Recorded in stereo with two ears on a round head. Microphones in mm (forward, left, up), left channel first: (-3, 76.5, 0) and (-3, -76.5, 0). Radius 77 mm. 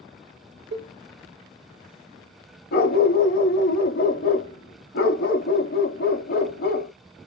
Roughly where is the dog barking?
Left.